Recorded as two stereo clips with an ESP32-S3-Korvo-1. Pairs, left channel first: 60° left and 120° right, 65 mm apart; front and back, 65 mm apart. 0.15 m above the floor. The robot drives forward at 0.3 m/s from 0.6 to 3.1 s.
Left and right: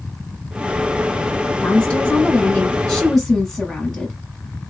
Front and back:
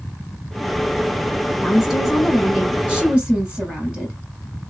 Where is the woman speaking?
85° left, 1.3 m; by 4.2 s 130° left, 1.4 m.